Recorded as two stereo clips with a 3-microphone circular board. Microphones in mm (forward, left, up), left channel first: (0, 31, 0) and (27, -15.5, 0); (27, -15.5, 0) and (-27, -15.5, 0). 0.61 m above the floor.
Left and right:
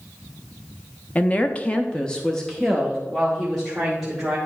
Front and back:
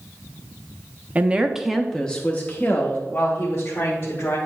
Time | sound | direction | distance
1.1 | a woman speaking | 150° left | 0.6 m